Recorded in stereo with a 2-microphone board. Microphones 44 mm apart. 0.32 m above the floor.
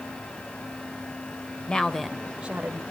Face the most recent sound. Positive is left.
turn(degrees=-40)  # may be behind; listen again after turning